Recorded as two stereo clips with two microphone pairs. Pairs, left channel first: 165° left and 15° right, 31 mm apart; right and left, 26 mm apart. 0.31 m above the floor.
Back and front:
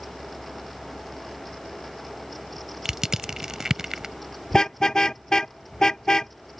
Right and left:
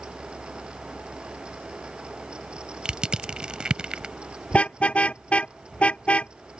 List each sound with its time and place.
2.9 s crushing: 50° left
4.5 s a car horn: 125° right